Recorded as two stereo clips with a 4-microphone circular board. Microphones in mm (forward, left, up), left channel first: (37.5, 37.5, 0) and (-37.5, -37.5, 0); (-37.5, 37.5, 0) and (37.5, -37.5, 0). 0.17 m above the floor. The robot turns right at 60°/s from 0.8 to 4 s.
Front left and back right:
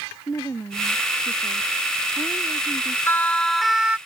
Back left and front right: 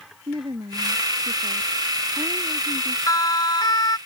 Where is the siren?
105° left; by 4.0 s 160° left.